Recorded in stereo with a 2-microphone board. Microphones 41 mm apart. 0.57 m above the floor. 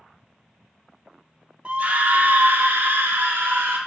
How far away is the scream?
About 0.9 m.